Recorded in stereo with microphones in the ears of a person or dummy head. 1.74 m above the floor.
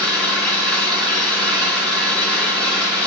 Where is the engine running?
10° left (ahead or behind), 2.5 m.